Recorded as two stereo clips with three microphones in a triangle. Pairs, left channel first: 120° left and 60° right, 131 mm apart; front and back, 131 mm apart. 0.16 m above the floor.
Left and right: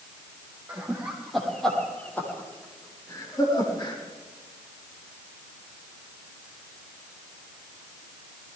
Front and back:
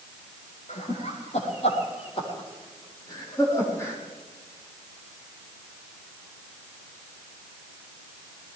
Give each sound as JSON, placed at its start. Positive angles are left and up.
{"t": 0.7, "sound": "laughter", "azimuth_deg": 20, "distance_m": 5.0}